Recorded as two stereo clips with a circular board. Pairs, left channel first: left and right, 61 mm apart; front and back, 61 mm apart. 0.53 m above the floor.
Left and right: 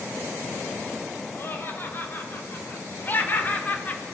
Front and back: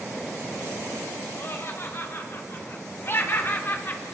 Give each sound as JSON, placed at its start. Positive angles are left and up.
{"t": 1.4, "sound": "laughter", "azimuth_deg": 45, "distance_m": 3.0}